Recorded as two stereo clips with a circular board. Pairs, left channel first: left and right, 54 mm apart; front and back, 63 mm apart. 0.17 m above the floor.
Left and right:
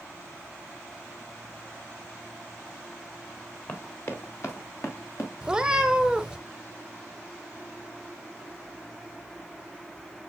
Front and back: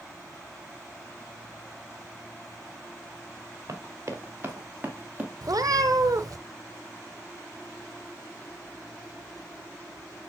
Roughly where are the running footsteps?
Behind left.